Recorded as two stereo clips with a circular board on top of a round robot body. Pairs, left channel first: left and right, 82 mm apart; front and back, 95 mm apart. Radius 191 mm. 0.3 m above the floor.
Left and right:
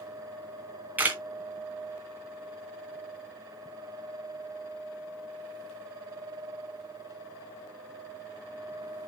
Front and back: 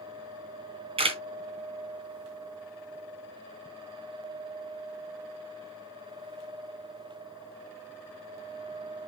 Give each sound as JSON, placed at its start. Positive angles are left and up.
{"t": 1.0, "sound": "a camera shutter", "azimuth_deg": -160, "distance_m": 2.0}